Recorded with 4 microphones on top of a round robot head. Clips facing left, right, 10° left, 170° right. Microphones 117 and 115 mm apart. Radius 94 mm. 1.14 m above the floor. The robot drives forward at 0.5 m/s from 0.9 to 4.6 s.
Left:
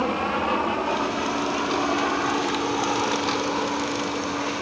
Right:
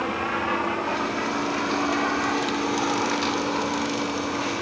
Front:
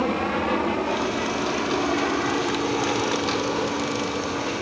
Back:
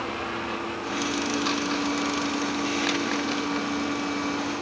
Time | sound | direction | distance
0.0 | an aircraft | 30° left | ?